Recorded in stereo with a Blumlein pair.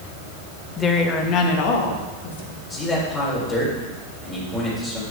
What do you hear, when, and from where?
0.8 s a woman speaking: 15° left, 1.1 m; by 2.6 s 55° left, 2 m
2.7 s a man speaking: 20° left, 3.5 m